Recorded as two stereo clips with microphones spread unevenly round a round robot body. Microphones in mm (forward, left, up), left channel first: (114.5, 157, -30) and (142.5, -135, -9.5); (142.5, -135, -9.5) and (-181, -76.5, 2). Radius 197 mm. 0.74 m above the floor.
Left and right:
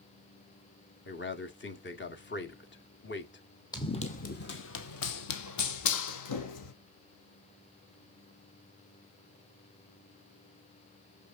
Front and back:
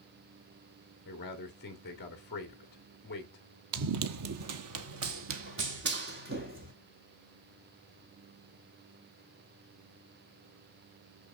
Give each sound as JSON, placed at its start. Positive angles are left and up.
{"t": 1.1, "sound": "a man speaking", "azimuth_deg": 50, "distance_m": 2.0}
{"t": 3.7, "sound": "running footsteps", "azimuth_deg": 175, "distance_m": 1.0}